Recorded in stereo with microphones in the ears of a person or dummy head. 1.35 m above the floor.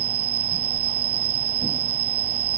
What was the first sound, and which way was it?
An insect, 80° right.